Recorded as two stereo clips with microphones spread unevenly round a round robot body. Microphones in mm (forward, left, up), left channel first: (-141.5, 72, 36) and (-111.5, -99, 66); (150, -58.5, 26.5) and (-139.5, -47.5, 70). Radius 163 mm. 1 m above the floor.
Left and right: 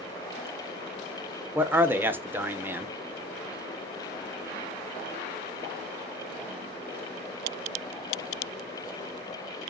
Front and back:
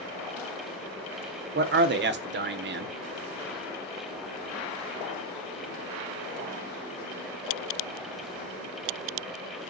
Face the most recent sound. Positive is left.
turn(degrees=-170)